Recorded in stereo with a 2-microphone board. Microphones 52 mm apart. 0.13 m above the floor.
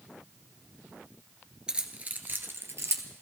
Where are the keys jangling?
20° right (ahead or behind), 1.2 m; by 3.0 s 60° right (ahead or behind), 1.6 m.